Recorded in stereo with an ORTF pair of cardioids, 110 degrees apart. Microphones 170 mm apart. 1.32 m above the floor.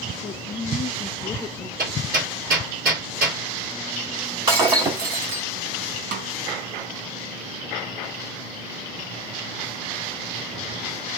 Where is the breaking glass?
30° right, 2.5 m.